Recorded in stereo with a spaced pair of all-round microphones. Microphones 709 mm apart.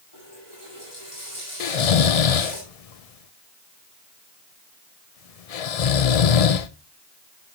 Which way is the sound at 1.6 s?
60° left (ahead or behind).